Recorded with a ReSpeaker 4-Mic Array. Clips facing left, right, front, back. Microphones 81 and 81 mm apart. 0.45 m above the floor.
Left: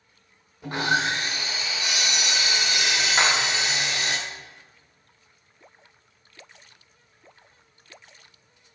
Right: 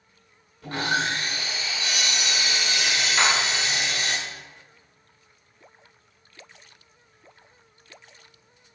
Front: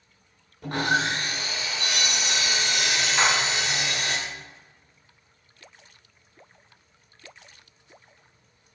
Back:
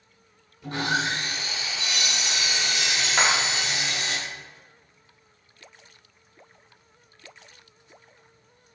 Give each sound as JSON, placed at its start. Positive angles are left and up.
{"t": 0.6, "sound": "sawing", "azimuth_deg": 20, "distance_m": 1.0}
{"t": 3.2, "sound": "a clap", "azimuth_deg": 155, "distance_m": 1.4}